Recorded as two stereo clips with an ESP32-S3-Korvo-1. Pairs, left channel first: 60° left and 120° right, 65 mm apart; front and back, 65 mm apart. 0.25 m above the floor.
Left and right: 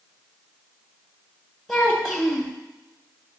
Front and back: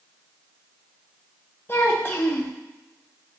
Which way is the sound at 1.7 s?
25° right.